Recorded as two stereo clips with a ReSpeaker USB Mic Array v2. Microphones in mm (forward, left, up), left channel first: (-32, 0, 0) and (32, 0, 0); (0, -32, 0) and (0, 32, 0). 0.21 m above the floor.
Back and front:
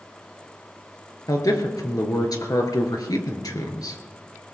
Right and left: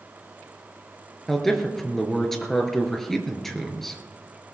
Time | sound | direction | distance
1.3 | a man speaking | 175° right | 3 m